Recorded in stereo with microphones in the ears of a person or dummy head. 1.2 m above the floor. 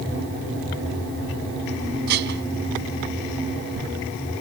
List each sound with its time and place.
2.1 s dishes clattering: 60° right (ahead or behind)